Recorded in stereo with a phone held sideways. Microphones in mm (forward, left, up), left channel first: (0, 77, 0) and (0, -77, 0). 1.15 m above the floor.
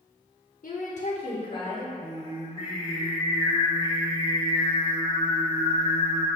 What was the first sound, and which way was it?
A woman speaking, 70° left (ahead or behind).